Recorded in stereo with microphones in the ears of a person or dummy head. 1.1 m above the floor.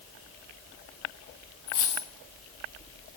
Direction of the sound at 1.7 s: 20° left (ahead or behind).